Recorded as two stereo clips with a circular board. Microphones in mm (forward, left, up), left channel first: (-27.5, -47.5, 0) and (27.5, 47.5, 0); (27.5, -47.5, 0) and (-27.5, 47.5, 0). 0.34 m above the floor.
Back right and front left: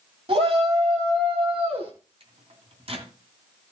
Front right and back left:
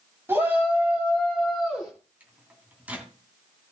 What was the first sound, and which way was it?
A shout, 55° left.